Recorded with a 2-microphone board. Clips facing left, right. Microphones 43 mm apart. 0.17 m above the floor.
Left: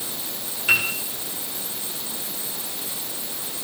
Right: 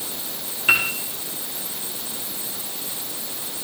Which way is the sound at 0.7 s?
25° right (ahead or behind).